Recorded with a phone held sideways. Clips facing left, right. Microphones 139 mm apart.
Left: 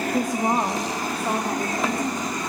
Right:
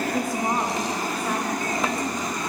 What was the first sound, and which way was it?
A woman speaking, 15° left (ahead or behind).